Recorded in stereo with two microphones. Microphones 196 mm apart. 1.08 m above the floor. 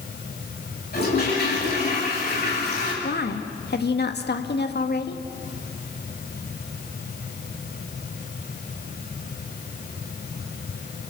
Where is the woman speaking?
60° left (ahead or behind), 1.8 m.